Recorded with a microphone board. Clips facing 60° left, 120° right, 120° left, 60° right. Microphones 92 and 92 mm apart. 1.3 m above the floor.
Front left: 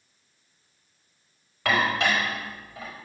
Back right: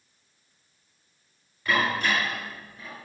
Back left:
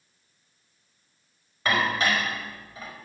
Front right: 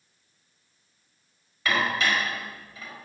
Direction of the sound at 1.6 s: 65° left.